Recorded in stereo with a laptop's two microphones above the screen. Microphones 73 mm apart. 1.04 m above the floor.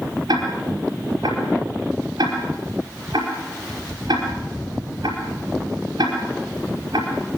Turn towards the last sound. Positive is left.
turn(degrees=-70)  # may be behind; listen again after turning